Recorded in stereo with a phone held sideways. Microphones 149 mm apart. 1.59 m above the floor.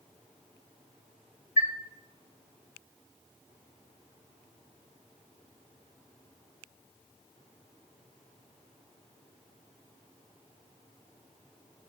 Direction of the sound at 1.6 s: 65° left (ahead or behind).